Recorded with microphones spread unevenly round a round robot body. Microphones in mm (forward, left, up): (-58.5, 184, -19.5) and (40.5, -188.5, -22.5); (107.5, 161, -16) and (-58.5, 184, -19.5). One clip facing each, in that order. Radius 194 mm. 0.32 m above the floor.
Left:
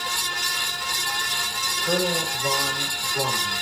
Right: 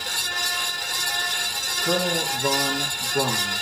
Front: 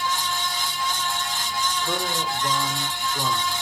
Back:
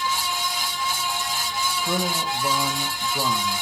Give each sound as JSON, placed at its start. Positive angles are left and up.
{"t": 1.8, "sound": "a man speaking", "azimuth_deg": -115, "distance_m": 4.5}